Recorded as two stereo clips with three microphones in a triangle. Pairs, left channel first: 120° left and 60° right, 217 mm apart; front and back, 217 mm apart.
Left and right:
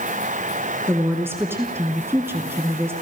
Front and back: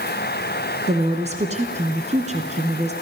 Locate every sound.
0.9 s a woman speaking: 135° right, 1.7 m